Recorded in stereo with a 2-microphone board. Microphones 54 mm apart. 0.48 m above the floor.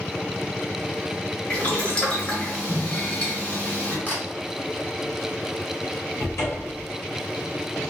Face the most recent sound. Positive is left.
turn(degrees=60)  # may be behind; listen again after turning